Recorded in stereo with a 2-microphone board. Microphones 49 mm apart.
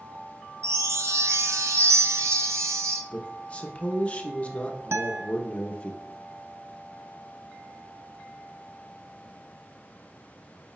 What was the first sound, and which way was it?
A chime, 70° right (ahead or behind).